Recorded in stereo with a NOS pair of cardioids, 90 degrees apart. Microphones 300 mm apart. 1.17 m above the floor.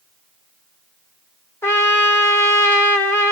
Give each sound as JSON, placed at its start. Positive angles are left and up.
{"t": 1.6, "sound": "a trumpet", "azimuth_deg": 10, "distance_m": 1.1}